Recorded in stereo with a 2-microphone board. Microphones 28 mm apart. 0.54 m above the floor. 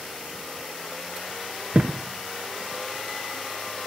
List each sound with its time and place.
1.7 s a thud: 60° right (ahead or behind), 1.2 m